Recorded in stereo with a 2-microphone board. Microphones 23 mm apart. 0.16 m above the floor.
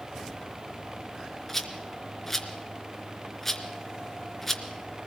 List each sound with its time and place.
1.5 s a rattle: 10° left (ahead or behind), 2.5 m